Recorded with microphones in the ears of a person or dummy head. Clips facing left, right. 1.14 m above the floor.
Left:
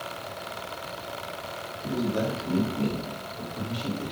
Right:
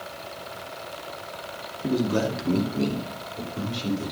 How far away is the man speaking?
About 1.9 m.